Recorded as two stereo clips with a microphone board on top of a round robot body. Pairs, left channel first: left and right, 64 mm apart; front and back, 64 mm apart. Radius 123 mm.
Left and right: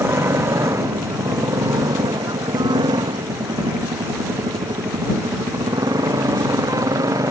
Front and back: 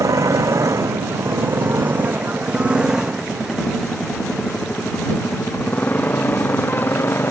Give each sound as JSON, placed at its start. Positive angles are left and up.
{"t": 0.0, "sound": "a motorcycle", "azimuth_deg": -145}